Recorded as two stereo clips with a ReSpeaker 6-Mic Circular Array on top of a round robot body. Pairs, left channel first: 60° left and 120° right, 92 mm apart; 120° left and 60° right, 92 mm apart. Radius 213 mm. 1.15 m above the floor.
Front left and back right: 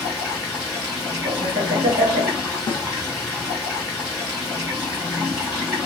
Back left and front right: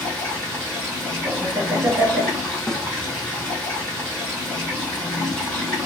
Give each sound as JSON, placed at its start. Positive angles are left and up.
{"t": 0.0, "sound": "running water", "azimuth_deg": -175, "distance_m": 1.6}
{"t": 1.2, "sound": "laughter", "azimuth_deg": -125, "distance_m": 1.5}
{"t": 2.7, "sound": "a snare drum", "azimuth_deg": 40, "distance_m": 0.6}